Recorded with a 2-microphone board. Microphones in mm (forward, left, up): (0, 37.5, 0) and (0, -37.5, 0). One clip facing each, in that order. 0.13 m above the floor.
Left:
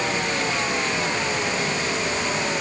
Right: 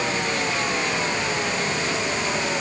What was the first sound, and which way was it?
Only background noise.